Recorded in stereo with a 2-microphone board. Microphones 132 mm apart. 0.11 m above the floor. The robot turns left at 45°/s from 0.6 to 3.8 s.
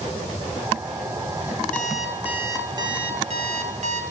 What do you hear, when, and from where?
1.7 s an alarm clock: 10° left, 1.1 m; by 4.0 s 80° right, 1.1 m